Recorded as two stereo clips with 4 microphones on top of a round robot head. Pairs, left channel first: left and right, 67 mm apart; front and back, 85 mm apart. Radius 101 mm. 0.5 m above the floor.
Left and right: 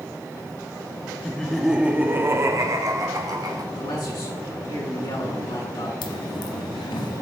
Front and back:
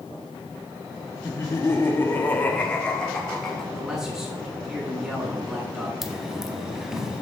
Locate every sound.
1.2 s laughter: 30° left, 1.0 m; by 3.6 s 85° right, 1.9 m
3.8 s a man speaking: 95° left, 5 m
6.0 s a dropped coin: 95° left, 0.9 m